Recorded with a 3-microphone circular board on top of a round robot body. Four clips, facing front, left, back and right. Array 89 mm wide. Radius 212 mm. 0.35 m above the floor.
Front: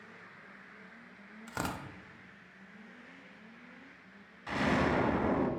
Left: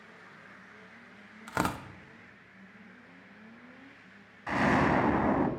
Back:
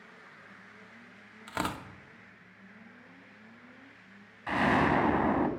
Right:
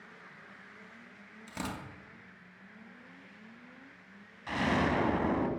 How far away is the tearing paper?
About 0.7 m.